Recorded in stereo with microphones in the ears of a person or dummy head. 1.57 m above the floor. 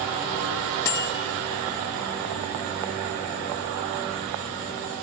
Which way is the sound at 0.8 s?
10° left (ahead or behind).